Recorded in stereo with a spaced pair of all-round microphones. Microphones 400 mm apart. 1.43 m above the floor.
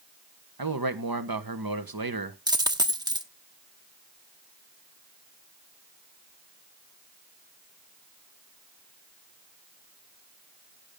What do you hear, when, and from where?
0.6 s a man speaking: 60° right (ahead or behind), 1.3 m
2.5 s a dropped coin: 10° right (ahead or behind), 0.9 m